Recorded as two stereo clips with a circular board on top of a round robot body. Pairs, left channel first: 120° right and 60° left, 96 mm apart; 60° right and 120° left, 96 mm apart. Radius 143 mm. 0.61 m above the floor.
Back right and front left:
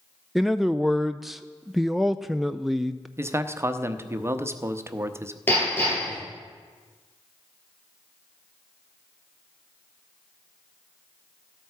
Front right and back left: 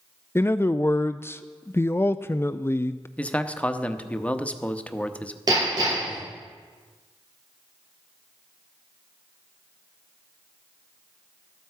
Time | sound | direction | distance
0.3 | a man speaking | 25° right | 0.6 m
3.2 | a man speaking | 10° left | 1.1 m
5.5 | hammering | 170° left | 7.5 m